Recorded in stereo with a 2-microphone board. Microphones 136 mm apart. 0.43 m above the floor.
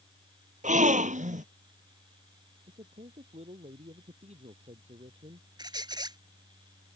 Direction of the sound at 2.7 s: 55° right (ahead or behind).